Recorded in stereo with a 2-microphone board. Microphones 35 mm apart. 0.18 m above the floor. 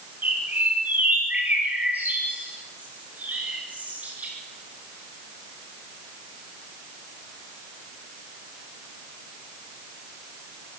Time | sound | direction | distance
0.2 | a bird | 60° right (ahead or behind) | 5 m